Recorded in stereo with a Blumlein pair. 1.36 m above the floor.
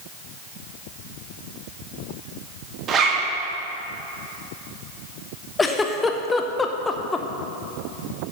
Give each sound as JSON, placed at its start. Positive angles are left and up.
{"t": 2.9, "sound": "a zipper", "azimuth_deg": -25, "distance_m": 1.6}
{"t": 5.6, "sound": "a giggle", "azimuth_deg": 15, "distance_m": 0.7}